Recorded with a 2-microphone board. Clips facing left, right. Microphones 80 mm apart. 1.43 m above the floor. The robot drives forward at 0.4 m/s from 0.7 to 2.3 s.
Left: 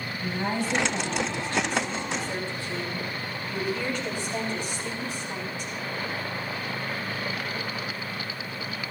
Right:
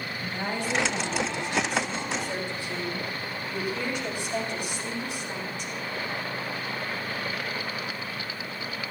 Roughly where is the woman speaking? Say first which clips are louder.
Left 3 dB; centre.